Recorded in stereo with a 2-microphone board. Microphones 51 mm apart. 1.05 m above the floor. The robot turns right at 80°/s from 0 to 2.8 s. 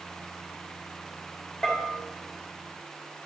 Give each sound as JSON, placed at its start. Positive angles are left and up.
{"t": 1.6, "sound": "a bell", "side_deg": 10, "distance_m": 1.6}